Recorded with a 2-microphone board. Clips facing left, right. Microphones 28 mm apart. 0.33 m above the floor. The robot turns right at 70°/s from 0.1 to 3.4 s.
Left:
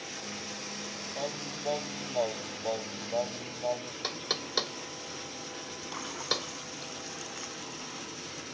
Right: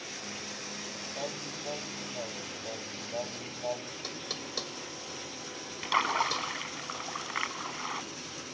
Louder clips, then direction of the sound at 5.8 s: Right 8 dB; 65° right (ahead or behind).